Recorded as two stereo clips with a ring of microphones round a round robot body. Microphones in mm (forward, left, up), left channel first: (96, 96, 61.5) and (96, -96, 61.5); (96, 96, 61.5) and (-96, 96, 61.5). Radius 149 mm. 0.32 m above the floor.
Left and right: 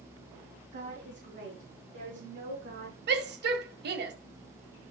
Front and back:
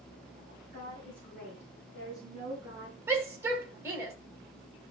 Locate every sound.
0.7 s a woman speaking: 75° right, 3.5 m; by 3.0 s 100° right, 5 m
3.1 s a shout: 105° right, 1.9 m